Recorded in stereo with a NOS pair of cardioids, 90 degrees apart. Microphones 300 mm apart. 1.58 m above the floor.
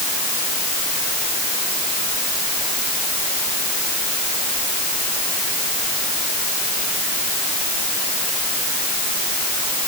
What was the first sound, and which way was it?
Only background noise.